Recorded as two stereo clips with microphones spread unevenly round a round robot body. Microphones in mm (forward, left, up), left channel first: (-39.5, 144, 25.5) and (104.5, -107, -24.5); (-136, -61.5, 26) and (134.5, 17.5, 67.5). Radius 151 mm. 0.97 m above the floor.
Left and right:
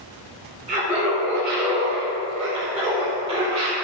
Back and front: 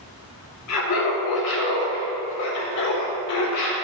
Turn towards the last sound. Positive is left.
turn(degrees=-140)